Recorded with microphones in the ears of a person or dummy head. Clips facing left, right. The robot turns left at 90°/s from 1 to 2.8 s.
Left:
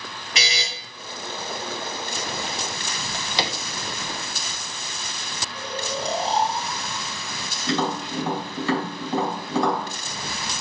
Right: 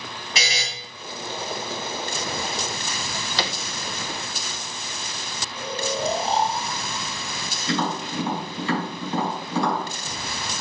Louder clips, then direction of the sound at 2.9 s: Left 2 dB; 15° left (ahead or behind).